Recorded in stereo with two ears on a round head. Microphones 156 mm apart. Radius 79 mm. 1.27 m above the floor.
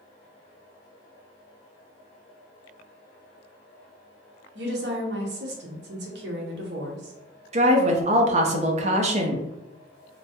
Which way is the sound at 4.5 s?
65° right (ahead or behind).